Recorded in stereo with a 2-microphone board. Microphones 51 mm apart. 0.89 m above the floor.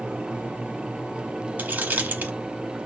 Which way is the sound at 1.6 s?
30° right (ahead or behind).